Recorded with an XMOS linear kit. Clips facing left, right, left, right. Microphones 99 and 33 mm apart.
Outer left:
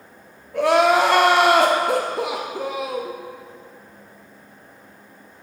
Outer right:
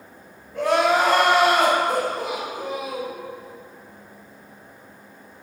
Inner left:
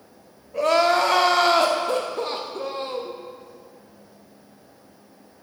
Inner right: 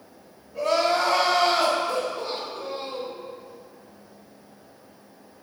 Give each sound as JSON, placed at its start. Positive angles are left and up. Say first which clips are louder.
{"t": 0.5, "sound": "crying", "louder": "outer left 3 dB, inner left 4 dB", "side_deg": 75, "distance_m": 0.7}